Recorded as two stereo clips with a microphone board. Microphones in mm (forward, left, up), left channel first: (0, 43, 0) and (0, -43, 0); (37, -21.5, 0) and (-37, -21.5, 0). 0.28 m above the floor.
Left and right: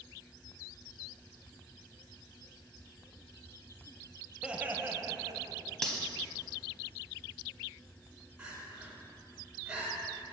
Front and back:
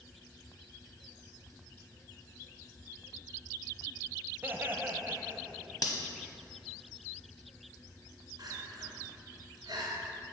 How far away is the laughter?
About 1.0 m.